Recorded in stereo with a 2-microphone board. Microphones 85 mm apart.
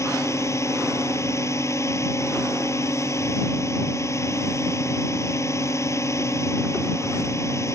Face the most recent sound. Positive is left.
turn(degrees=35)  # may be behind; listen again after turning